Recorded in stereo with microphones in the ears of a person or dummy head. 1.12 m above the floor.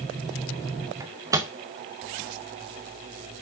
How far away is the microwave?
About 0.7 m.